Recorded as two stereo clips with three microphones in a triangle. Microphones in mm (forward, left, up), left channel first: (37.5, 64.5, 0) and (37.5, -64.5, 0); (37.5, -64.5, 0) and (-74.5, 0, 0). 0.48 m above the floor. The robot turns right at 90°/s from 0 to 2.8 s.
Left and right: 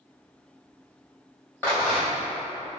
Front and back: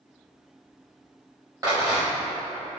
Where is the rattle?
150° left, 1.1 m; by 2.3 s 155° right, 1.1 m.